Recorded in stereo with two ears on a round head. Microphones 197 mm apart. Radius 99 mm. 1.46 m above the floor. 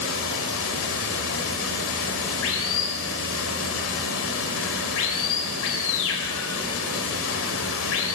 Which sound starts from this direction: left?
Running water, at 0.0 s.